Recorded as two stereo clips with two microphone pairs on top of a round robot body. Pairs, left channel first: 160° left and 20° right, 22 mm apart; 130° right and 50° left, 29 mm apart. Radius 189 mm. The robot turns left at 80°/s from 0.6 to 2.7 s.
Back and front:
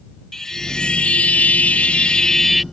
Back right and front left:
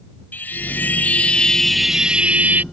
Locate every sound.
0.3 s a chime: 125° right; by 2.6 s 70° left